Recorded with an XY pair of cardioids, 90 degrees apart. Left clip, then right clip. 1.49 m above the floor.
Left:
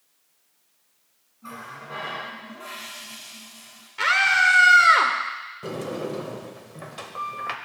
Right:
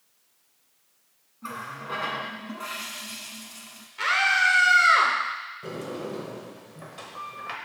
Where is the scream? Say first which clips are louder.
Left 3 dB; 60° left, 0.8 m.